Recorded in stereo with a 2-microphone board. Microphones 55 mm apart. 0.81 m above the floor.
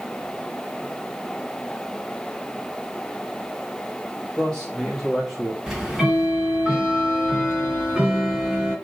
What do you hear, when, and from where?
4.4 s a man speaking: 10° left (ahead or behind), 3 m; by 5.6 s 5° right (ahead or behind), 1.8 m
5.7 s ticking: 10° right (ahead or behind), 3.5 m